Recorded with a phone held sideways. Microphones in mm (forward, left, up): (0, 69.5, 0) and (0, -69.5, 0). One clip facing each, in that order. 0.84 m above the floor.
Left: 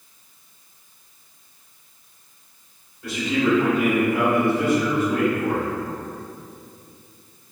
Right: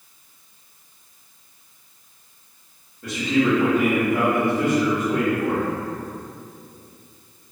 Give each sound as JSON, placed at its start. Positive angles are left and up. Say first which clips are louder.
{"t": 3.0, "sound": "a man speaking", "louder": "right 2 dB", "side_deg": -40, "distance_m": 1.4}